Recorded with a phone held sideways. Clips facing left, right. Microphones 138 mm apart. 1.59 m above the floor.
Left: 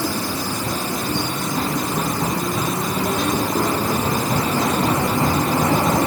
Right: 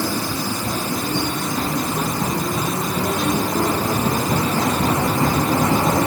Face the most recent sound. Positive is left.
No sound to turn to.